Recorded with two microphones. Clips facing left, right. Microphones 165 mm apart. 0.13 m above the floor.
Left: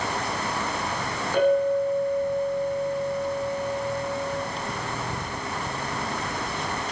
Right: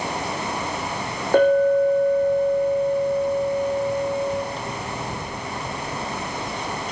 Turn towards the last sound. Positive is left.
turn(degrees=-55)  # may be behind; listen again after turning